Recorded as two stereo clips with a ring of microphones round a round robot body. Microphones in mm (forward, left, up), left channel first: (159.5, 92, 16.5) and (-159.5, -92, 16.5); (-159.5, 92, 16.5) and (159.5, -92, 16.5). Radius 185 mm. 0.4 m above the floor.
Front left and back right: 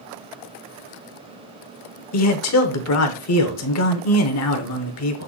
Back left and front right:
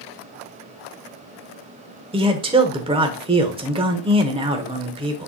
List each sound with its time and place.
2.1 s a man speaking: 40° left, 1.1 m